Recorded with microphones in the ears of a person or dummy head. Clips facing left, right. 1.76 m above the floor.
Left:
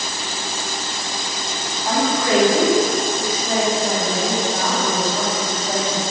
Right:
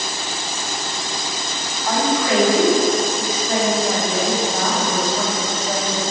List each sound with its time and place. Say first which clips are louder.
1.9 s a woman speaking: even; 30° left (ahead or behind), 1.5 m